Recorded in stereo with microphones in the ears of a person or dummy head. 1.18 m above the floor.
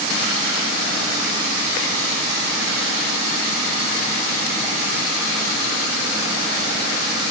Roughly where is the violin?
I don't hear a violin.